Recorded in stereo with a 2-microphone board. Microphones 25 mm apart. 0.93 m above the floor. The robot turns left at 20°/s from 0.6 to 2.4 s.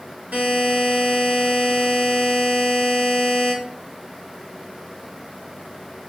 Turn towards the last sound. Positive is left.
turn(degrees=-125)